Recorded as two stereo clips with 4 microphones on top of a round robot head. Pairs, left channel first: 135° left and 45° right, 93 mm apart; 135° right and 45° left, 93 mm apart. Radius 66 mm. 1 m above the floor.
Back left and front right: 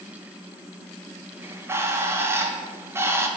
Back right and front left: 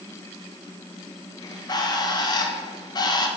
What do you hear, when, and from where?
1.4 s a bird: 105° right, 1.3 m